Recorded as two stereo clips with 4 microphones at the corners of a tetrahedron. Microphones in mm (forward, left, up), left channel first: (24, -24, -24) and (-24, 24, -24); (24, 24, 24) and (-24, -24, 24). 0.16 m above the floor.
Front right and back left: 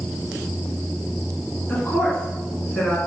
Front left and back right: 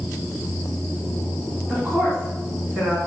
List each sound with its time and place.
1.7 s a woman speaking: 95° right, 1.4 m